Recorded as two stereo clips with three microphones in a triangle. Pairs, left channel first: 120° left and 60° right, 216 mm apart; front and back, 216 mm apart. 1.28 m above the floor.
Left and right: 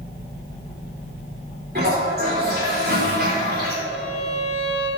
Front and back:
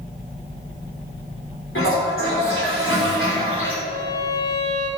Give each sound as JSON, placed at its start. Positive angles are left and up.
{"t": 1.8, "sound": "a toilet flushing", "azimuth_deg": -20, "distance_m": 4.5}
{"t": 3.9, "sound": "a violin", "azimuth_deg": -75, "distance_m": 3.5}